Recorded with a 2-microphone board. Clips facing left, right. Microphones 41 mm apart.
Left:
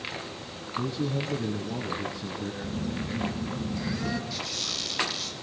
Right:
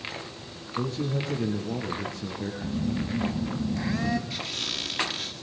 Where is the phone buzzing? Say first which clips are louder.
Right 6 dB; 55° right (ahead or behind), 4 m.